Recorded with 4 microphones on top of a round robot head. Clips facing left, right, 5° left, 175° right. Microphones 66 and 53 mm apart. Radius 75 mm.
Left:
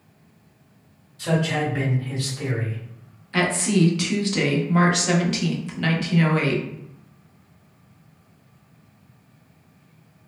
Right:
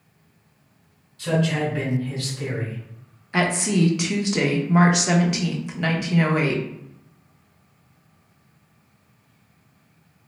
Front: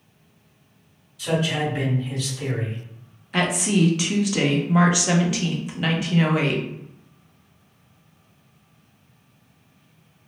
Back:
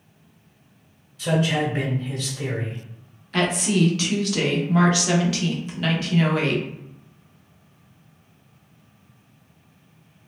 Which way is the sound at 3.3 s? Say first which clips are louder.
Even, even; 45° right.